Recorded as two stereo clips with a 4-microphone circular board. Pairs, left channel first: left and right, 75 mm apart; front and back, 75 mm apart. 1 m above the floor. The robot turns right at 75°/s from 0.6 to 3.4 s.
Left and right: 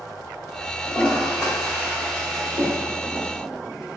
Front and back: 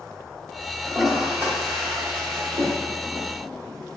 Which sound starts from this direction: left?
A toilet flushing, at 0.8 s.